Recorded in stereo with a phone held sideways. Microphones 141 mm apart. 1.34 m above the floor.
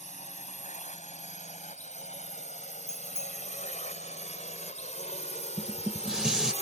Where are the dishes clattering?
5° right (ahead or behind).